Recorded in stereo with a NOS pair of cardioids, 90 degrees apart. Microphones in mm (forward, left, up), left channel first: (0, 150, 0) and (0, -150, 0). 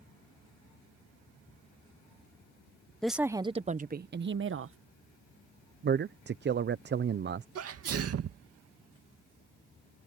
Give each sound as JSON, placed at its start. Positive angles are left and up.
{"t": 3.0, "sound": "a woman speaking", "azimuth_deg": 0}
{"t": 5.8, "sound": "a man speaking", "azimuth_deg": -35}
{"t": 7.5, "sound": "a sneeze", "azimuth_deg": -50}